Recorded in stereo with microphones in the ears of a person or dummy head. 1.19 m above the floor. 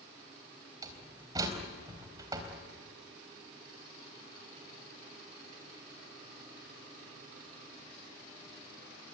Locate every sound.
0.8 s a door slam: 25° right (ahead or behind), 4 m